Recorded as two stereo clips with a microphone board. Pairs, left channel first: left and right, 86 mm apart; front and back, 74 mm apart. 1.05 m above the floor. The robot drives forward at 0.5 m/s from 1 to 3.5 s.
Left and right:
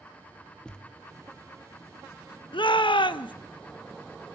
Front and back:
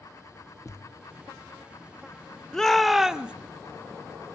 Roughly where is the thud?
Ahead.